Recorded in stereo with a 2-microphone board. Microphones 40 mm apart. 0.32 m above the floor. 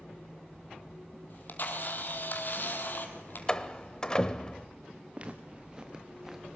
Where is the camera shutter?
55° left (ahead or behind), 2.5 m.